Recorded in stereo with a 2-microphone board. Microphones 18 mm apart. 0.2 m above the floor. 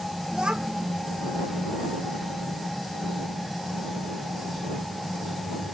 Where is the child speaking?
70° right (ahead or behind).